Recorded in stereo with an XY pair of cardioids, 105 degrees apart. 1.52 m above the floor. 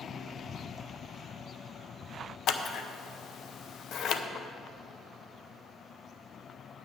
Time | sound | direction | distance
2.5 | scissors | 65° left | 0.8 m